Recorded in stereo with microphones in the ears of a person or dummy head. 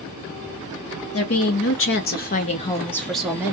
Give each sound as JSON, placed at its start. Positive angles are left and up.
{"t": 1.1, "sound": "a woman speaking", "side_deg": 65, "distance_m": 1.0}